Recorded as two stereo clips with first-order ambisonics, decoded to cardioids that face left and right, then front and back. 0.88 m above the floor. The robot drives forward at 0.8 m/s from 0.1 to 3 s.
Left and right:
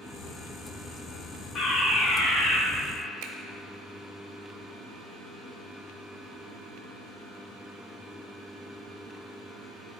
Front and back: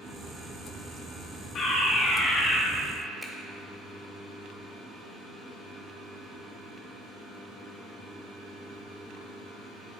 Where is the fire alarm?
45° left, 1.9 m; by 2.6 s 80° left, 1.7 m.